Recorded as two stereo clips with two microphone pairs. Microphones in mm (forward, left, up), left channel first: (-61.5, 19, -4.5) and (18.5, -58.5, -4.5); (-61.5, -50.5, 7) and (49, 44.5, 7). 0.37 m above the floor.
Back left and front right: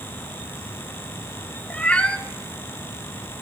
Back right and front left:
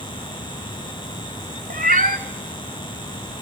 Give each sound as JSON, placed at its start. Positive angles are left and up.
{"t": 1.7, "sound": "a cat meowing", "azimuth_deg": 55, "distance_m": 0.9}